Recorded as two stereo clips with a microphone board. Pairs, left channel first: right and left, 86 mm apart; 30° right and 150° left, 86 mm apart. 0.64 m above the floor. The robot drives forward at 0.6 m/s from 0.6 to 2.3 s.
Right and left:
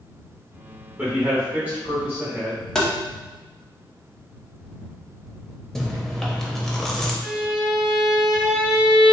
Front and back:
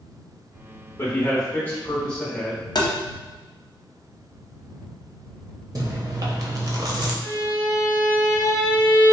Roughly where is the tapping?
Ahead.